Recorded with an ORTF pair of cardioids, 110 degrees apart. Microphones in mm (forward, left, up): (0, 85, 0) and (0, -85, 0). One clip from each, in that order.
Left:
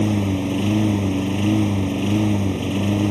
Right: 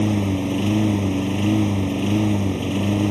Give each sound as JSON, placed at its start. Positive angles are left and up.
{"t": 0.0, "sound": "a lawn mower", "azimuth_deg": 0}